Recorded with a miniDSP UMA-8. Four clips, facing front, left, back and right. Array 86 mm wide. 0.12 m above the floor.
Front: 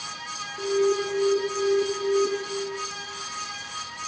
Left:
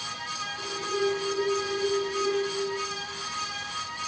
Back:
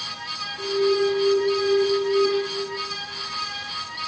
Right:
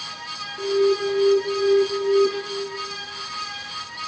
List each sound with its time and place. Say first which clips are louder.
0.6 s an alarm: right 10 dB, back 2 dB; 55° right, 1.7 m